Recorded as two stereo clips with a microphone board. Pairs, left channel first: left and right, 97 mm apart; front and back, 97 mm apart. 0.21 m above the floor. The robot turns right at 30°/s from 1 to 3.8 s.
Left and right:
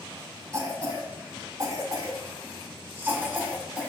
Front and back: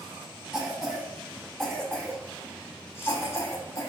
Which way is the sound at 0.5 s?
100° right.